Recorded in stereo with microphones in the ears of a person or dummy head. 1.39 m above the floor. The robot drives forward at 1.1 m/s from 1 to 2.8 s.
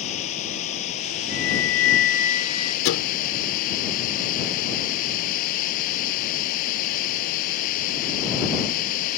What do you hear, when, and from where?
0.0 s running water: 35° left (ahead or behind); by 9.2 s 45° left (ahead or behind)
1.3 s a flute: 45° left (ahead or behind); by 2.8 s 25° left (ahead or behind)
2.9 s a thud: 60° left (ahead or behind)